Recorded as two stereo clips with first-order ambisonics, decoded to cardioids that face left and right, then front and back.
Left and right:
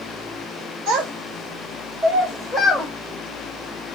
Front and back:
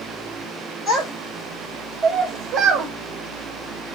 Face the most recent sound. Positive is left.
turn(degrees=-175)